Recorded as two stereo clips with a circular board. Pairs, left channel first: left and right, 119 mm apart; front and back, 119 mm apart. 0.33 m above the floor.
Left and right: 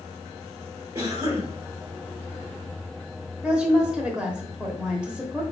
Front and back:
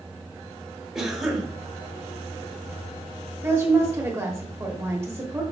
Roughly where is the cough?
Right.